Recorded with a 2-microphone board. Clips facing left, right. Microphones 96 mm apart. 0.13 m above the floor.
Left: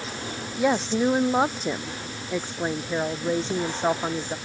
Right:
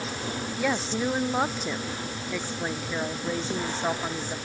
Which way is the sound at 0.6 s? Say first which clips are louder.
Left 6 dB; 20° left (ahead or behind).